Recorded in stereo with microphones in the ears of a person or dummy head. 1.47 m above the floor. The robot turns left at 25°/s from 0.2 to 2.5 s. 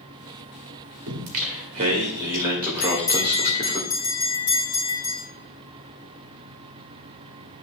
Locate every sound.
1.1 s singing: 125° right, 1.5 m; by 3.8 s 160° right, 1.5 m
2.8 s a bell: 15° left (ahead or behind), 2.5 m